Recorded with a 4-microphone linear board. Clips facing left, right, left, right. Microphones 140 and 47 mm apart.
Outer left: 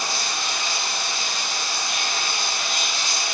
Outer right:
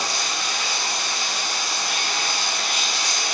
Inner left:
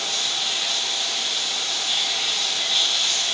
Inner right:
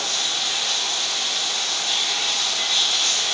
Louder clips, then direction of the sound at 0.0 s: Outer right 1 dB, inner right 1 dB; 80° right.